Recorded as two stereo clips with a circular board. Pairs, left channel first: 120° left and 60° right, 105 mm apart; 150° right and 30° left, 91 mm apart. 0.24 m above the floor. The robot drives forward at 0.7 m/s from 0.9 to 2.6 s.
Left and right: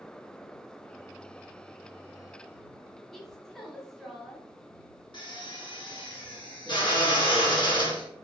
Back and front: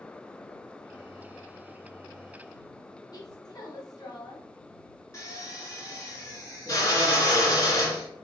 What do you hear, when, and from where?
3.1 s a woman speaking: 155° right, 1.5 m
5.1 s a drill: 155° left, 1.7 m